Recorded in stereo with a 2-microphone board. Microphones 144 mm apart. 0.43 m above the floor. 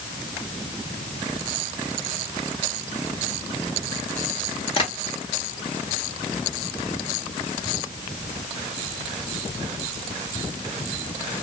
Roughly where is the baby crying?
No baby crying in this recording.